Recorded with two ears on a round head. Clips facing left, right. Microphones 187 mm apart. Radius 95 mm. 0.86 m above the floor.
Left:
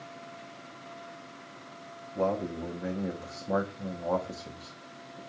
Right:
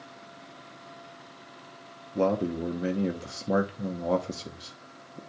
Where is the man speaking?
35° right (ahead or behind), 1.0 m.